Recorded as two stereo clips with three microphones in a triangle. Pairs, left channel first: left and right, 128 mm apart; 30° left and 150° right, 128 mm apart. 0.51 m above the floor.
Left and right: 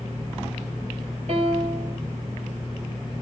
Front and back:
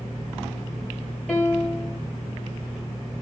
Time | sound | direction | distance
1.3 | a piano | 55° right | 1.8 m